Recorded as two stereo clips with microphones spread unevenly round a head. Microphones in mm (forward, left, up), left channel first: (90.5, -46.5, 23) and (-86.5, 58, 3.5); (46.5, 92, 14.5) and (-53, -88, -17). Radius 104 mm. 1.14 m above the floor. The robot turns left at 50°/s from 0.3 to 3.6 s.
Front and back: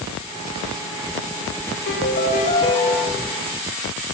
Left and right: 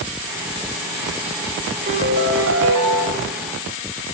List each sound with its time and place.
1.9 s a piano: 60° right, 4.5 m; by 3.0 s 120° right, 4.5 m